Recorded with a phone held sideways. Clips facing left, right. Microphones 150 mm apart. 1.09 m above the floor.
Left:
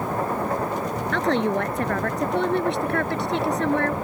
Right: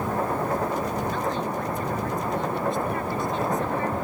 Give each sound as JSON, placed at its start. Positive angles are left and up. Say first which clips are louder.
{"t": 1.1, "sound": "a woman speaking", "louder": "left 5 dB", "side_deg": 75}